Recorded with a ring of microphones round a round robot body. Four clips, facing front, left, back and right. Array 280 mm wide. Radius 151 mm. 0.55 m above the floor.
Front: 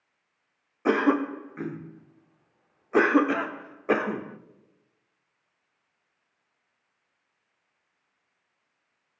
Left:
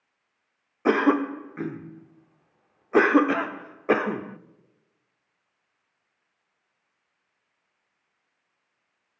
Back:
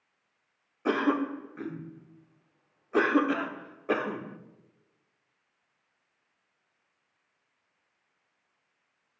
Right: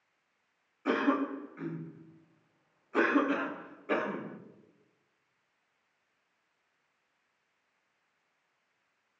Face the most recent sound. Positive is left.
turn(degrees=70)